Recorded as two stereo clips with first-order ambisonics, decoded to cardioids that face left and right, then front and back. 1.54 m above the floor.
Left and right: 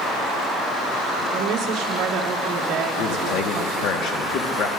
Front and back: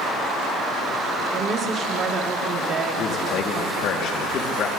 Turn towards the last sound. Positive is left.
turn(degrees=45)